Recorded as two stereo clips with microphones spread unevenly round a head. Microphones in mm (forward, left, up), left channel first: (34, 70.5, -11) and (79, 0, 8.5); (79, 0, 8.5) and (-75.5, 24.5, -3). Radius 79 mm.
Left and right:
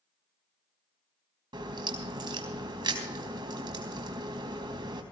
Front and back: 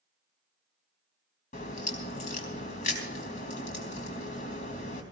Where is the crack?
50° right, 4 m.